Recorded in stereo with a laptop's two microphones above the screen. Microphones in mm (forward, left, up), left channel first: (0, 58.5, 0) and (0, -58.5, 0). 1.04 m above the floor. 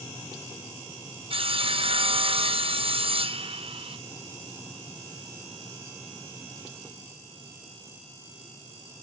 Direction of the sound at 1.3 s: 55° right (ahead or behind).